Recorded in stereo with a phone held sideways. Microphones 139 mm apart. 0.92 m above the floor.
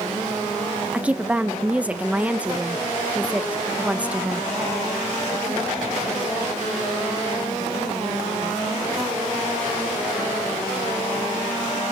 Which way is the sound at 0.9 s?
10° right (ahead or behind).